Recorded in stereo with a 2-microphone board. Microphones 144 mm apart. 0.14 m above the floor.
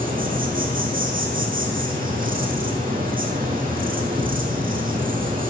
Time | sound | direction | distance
0.0 | an insect | 75° right (ahead or behind) | 3 m